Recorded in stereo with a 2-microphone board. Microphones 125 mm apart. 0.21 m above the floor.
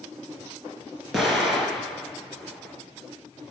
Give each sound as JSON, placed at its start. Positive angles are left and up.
{"t": 1.1, "sound": "an explosion", "side_deg": 0, "distance_m": 3.5}